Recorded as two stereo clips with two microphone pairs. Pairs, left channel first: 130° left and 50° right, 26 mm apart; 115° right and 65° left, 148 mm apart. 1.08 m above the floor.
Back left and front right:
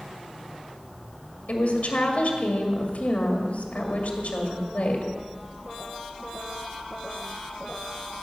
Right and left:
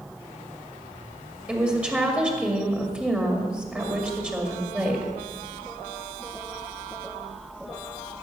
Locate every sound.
1.5 s a woman speaking: 145° left, 2 m